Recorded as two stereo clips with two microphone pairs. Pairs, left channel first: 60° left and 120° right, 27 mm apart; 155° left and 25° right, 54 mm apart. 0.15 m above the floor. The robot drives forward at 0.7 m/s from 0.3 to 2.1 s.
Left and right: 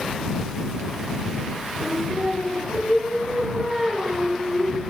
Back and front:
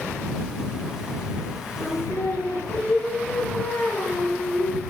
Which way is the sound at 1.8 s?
175° right.